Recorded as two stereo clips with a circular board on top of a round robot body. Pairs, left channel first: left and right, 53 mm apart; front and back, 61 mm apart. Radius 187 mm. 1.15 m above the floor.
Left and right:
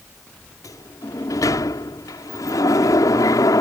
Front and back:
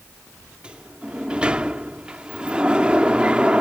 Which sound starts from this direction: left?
A sliding door, at 0.6 s.